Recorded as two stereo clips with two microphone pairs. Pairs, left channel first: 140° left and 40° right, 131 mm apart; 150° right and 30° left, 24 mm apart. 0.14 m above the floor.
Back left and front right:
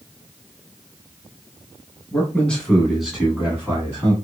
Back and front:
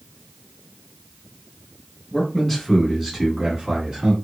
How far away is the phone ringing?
I don't hear a phone ringing.